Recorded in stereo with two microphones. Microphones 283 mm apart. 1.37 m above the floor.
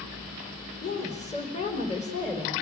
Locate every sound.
0.8 s a woman speaking: 25° left (ahead or behind), 4.5 m